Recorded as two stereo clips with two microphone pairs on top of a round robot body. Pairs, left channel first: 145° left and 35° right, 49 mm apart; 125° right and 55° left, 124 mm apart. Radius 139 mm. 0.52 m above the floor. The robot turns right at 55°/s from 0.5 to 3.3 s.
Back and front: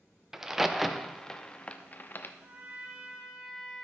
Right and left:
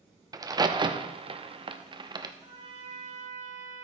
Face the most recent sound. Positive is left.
turn(degrees=55)